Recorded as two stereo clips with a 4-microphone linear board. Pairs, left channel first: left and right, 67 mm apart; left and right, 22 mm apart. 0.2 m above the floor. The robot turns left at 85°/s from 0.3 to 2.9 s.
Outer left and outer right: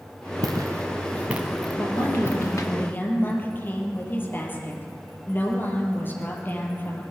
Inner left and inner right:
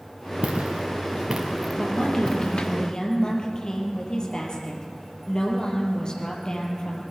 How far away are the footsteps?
About 2 m.